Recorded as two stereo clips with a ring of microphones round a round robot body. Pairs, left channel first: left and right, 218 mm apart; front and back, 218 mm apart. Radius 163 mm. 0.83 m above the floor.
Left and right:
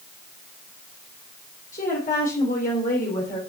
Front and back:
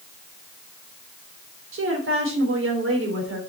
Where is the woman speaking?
155° left, 3.5 m.